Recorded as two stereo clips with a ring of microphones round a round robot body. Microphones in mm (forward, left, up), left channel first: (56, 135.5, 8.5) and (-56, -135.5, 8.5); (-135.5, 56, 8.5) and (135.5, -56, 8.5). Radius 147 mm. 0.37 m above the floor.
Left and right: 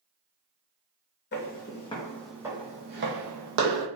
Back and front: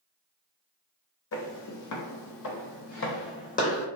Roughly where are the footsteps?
Behind left.